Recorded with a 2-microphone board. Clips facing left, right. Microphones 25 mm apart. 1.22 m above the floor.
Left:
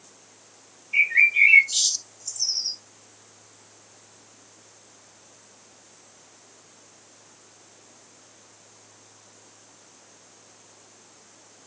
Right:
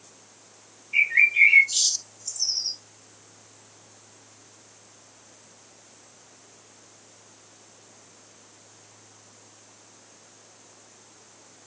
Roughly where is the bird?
Centre.